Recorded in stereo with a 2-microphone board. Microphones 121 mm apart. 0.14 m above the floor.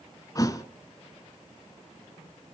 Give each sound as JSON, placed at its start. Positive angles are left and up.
{"t": 0.3, "sound": "a thud", "side_deg": 30, "distance_m": 0.8}